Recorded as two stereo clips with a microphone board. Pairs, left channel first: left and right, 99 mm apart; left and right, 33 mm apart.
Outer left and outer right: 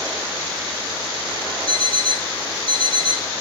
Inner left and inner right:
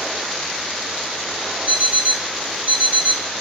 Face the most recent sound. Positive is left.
turn(degrees=-60)  # may be behind; listen again after turning